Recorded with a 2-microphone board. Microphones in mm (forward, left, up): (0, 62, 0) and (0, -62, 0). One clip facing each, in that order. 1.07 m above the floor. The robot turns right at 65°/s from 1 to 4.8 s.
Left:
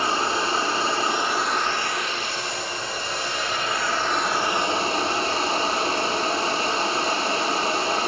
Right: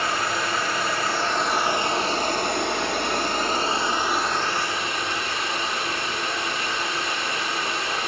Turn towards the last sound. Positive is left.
turn(degrees=35)